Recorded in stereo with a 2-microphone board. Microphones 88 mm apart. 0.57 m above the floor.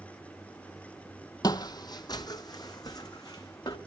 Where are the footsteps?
45° left (ahead or behind), 0.7 m; by 3.8 s 40° left (ahead or behind), 1.8 m.